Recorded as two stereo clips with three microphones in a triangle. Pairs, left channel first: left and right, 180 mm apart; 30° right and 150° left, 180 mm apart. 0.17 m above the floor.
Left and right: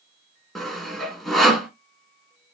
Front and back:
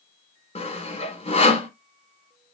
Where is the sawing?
Straight ahead, 1.1 m.